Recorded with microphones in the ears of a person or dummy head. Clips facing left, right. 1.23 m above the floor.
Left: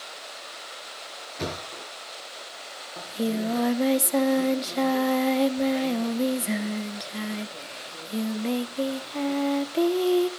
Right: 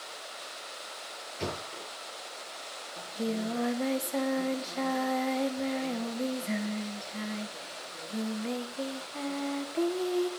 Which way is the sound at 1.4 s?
75° left (ahead or behind).